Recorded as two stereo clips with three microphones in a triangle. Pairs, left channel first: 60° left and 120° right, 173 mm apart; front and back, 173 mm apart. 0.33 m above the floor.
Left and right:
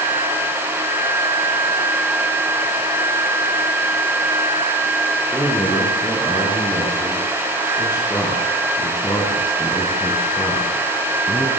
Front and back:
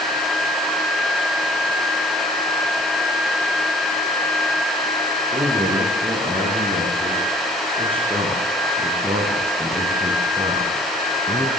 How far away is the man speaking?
About 6.5 m.